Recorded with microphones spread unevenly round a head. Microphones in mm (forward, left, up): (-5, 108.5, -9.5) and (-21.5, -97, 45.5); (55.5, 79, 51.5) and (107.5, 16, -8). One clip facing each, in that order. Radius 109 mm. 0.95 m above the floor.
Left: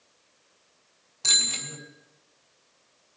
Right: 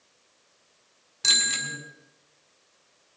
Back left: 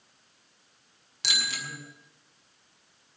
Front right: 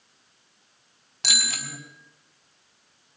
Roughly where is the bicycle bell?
Ahead right.